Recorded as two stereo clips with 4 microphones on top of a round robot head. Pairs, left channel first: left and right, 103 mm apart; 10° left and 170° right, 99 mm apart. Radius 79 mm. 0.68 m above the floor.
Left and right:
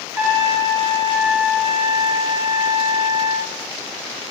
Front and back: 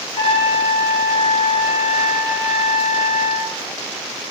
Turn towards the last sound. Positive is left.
turn(degrees=-25)